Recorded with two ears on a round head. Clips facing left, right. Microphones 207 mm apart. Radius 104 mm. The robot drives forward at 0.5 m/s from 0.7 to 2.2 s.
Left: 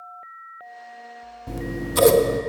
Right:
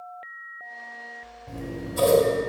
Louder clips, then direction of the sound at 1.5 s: Left 4 dB; 65° left (ahead or behind).